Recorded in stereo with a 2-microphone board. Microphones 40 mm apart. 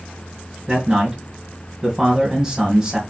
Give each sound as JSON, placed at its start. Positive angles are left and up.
{"t": 0.7, "sound": "a man speaking", "side_deg": -20, "distance_m": 1.6}